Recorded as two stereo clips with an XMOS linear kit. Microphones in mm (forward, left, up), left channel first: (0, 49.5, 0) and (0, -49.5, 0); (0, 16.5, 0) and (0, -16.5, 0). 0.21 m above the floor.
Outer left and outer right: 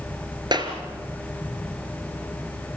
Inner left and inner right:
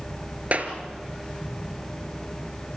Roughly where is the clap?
Right.